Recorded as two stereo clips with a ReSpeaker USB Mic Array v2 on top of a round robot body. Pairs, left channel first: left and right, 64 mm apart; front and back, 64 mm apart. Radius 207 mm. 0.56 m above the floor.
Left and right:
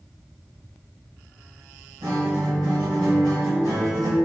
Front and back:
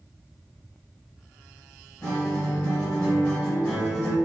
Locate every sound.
2.0 s a guitar: 80° right, 0.6 m